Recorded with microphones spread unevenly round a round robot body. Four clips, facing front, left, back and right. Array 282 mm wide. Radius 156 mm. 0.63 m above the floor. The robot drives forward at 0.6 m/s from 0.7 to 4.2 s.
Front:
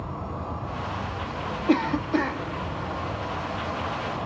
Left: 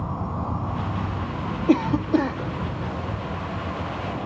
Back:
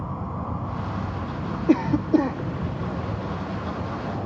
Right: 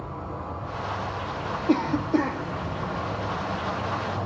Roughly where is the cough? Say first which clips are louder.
Left 3 dB, back 3 dB; behind left.